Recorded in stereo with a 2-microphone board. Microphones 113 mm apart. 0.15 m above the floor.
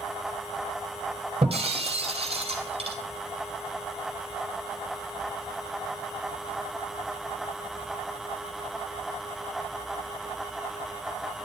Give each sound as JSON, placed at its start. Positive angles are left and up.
{"t": 1.4, "sound": "breaking glass", "side_deg": -55, "distance_m": 2.0}